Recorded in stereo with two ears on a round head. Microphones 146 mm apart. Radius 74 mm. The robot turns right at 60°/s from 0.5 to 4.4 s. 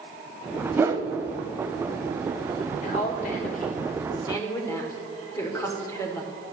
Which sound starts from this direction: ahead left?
A woman speaking, at 2.8 s.